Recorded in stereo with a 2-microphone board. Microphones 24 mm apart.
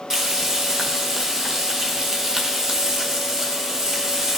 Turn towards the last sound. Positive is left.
turn(degrees=-20)  # may be behind; listen again after turning